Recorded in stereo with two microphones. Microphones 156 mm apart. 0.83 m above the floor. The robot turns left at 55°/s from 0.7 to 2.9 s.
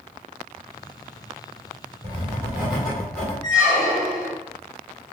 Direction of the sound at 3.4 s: 25° left (ahead or behind).